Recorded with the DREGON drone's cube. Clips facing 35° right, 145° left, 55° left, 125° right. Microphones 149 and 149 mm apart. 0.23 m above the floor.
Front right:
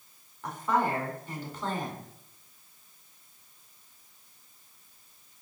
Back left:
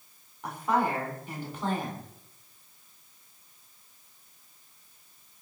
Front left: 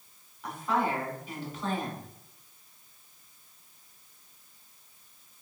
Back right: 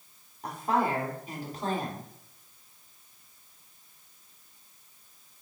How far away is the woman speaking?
About 1.3 m.